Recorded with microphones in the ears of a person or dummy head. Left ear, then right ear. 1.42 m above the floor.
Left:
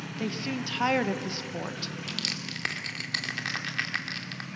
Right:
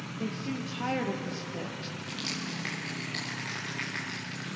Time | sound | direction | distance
0.2 | a woman speaking | 45° left (ahead or behind) | 1.2 m
2.1 | crushing | 45° left (ahead or behind) | 2 m